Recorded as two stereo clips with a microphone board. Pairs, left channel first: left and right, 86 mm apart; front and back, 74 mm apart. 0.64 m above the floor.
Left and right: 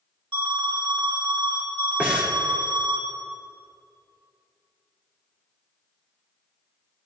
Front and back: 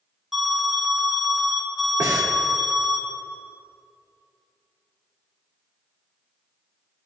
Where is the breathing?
160° right, 1.7 m.